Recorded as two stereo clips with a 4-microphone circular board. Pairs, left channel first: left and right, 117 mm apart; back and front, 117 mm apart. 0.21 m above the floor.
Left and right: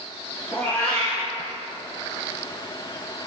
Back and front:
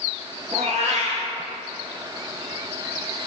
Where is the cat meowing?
15° left, 1.4 m.